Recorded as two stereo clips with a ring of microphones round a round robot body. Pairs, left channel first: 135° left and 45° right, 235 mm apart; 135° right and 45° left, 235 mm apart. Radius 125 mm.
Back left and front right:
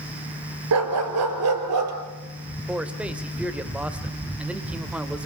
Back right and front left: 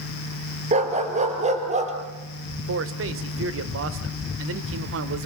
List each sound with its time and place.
0.7 s a dog barking: 20° right, 3 m
2.7 s a man speaking: 40° left, 1.7 m